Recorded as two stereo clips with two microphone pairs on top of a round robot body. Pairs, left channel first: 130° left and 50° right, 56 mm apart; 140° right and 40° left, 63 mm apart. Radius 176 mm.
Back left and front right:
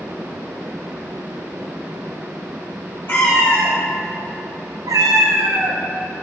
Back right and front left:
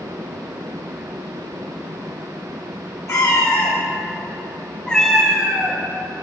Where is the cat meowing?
Straight behind, 2.5 m; by 5.8 s 30° right, 2.0 m.